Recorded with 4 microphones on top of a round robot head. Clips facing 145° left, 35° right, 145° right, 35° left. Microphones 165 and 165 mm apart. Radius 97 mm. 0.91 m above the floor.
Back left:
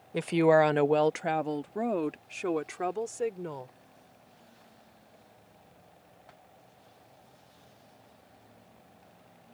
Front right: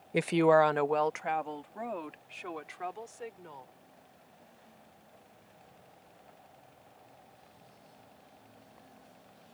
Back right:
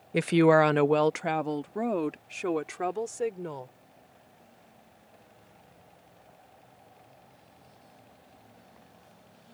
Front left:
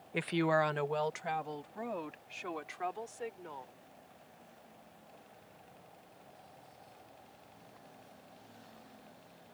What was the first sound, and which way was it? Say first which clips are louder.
A woman speaking: back left 1 dB, back right 11 dB; 105° right.